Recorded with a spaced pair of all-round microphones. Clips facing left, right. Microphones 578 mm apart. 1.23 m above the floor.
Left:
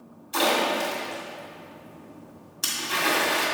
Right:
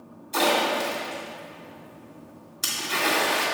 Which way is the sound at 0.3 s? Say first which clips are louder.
Right 1 dB; 5° right (ahead or behind).